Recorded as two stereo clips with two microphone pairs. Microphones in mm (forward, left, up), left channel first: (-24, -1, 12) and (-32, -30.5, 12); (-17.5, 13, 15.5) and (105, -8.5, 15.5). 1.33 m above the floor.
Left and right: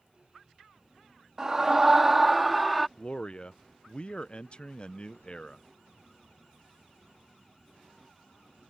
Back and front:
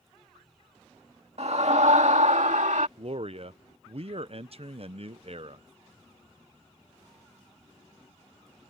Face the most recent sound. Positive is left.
turn(degrees=25)